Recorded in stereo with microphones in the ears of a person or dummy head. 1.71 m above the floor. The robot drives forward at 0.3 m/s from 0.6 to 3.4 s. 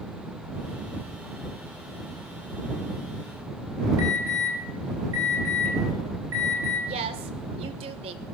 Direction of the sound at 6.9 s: 35° right (ahead or behind).